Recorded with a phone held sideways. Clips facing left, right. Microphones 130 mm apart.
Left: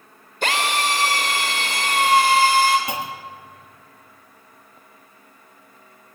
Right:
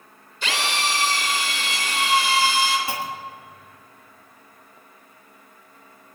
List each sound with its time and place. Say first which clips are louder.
0.4 s a drill: left 4 dB; 50° left (ahead or behind), 3.5 m
2.9 s a clunk: left 1 dB; 20° left (ahead or behind), 1.6 m